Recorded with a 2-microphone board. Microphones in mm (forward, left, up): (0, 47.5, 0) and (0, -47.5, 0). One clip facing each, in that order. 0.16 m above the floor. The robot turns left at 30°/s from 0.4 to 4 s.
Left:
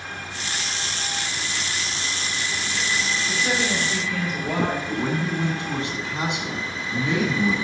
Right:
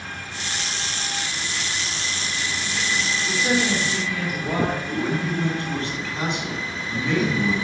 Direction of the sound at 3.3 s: 20° right (ahead or behind).